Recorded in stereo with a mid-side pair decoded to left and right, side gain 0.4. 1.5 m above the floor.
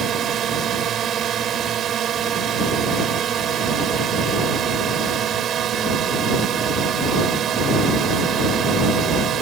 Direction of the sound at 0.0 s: 65° right.